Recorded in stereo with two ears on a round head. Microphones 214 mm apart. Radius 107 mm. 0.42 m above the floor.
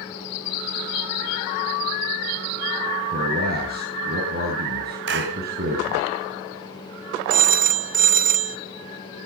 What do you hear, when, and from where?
3.1 s a man speaking: 45° right (ahead or behind), 5 m
5.1 s a clap: 55° right (ahead or behind), 2.5 m
7.3 s a phone ringing: 40° right (ahead or behind), 1.2 m